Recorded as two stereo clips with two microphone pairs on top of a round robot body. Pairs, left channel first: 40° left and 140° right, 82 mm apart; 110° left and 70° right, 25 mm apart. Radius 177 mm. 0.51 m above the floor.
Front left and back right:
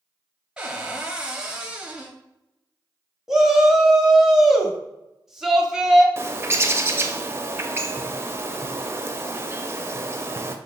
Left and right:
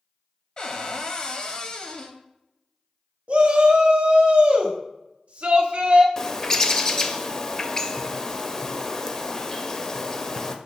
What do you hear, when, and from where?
0.6 s a cupboard door: 160° left, 0.9 m
3.3 s a shout: 60° right, 1.2 m
6.2 s a bird: straight behind, 0.7 m